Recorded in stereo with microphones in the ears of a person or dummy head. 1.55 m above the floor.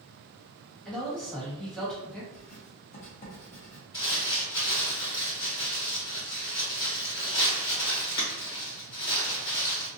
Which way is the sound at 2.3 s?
40° left (ahead or behind).